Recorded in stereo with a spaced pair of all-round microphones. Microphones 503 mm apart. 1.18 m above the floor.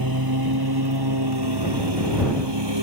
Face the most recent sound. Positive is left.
turn(degrees=-55)  # may be behind; listen again after turning